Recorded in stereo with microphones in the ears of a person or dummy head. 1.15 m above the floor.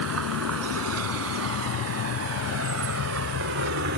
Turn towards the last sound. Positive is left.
turn(degrees=-55)  # may be behind; listen again after turning